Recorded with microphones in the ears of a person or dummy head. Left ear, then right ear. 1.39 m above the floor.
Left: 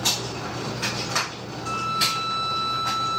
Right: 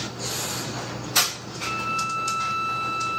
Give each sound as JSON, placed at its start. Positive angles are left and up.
{"t": 1.6, "sound": "a violin", "side_deg": -15, "distance_m": 3.0}